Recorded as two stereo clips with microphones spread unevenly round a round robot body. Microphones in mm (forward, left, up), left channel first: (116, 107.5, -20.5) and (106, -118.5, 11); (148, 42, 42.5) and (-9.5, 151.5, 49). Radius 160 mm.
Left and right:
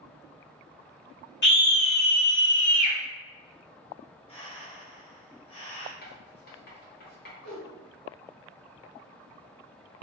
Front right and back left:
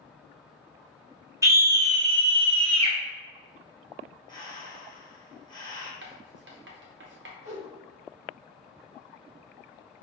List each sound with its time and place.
1.4 s a scream: 70° left, 1.8 m; by 3.0 s 115° left, 1.1 m
4.3 s breathing: 30° left, 1.4 m
6.0 s writing: 135° left, 0.8 m
7.4 s a whoosh: 165° right, 1.4 m